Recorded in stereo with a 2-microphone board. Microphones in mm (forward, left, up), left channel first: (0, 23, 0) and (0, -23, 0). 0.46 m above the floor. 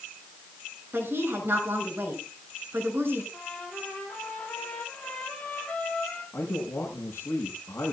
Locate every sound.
0.9 s a woman speaking: 50° right (ahead or behind), 5.5 m
3.3 s a trumpet: 25° left (ahead or behind), 6 m
6.3 s a man speaking: 60° left (ahead or behind), 5 m